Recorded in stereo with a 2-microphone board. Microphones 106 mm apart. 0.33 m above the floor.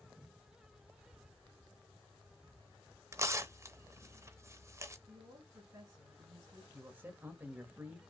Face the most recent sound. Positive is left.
turn(degrees=-20)  # may be behind; listen again after turning